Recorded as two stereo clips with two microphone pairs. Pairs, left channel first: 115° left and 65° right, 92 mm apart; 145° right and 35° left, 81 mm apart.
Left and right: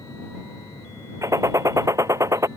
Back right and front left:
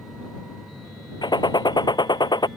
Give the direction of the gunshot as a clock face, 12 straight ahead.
4 o'clock.